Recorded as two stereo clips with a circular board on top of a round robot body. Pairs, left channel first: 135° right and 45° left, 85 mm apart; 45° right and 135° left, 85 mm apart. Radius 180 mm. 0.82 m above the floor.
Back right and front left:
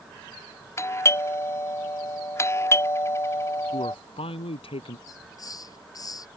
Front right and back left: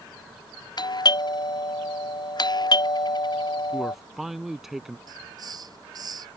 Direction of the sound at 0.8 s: 80° right.